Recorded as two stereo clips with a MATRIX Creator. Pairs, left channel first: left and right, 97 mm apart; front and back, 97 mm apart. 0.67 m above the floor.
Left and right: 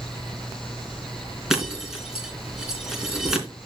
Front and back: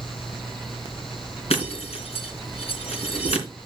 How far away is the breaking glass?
About 3 m.